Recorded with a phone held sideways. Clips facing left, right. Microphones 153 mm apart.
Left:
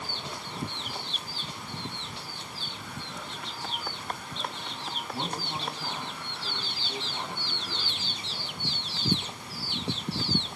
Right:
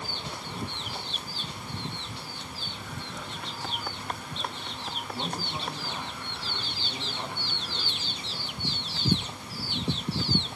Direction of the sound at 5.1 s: 45° left (ahead or behind).